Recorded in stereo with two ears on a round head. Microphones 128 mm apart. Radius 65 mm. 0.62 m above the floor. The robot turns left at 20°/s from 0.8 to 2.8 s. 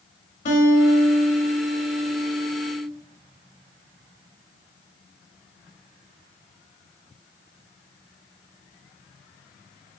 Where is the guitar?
60° left, 0.8 m; by 2.9 s 20° left, 0.8 m.